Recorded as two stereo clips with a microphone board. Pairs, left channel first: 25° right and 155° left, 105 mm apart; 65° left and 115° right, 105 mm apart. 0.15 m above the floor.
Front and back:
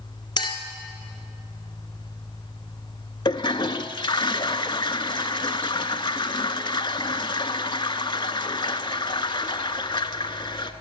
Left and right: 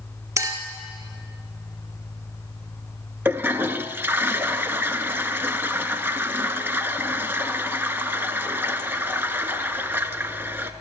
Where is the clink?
60° right, 1.7 m.